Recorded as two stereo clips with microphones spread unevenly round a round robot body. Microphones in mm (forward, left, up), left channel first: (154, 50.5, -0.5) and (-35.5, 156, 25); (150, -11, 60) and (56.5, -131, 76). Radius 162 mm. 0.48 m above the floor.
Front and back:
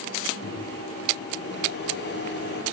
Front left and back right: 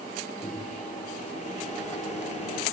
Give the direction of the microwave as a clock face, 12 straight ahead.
12 o'clock.